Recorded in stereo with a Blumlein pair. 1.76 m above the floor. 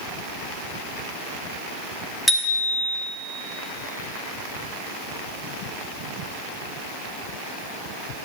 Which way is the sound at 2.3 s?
Straight ahead.